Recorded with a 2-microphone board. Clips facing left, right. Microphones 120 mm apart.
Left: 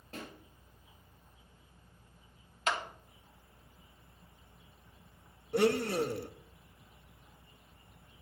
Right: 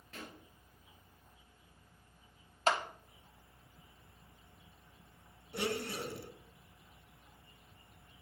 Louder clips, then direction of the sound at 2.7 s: Right 3 dB; 35° right (ahead or behind).